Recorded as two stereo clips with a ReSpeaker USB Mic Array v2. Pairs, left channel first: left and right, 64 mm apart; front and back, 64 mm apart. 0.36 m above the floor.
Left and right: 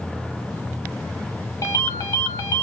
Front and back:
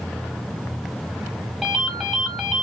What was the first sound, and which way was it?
A ringtone, 95° left.